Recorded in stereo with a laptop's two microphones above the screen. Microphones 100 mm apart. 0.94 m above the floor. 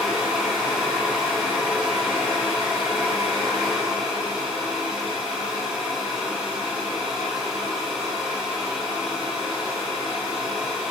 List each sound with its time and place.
0.0 s a fan: 5° right (ahead or behind), 1.3 m